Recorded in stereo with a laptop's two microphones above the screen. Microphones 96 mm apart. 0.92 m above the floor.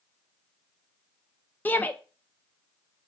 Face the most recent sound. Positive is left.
turn(degrees=20)  # may be behind; listen again after turning